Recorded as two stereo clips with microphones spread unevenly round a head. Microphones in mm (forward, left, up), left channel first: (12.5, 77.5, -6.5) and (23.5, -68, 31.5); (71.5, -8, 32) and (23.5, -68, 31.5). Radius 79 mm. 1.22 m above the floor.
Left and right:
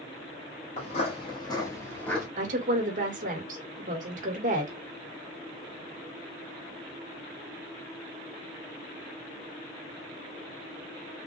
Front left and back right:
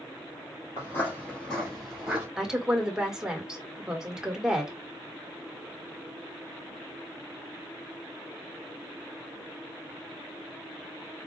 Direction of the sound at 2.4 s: 45° right.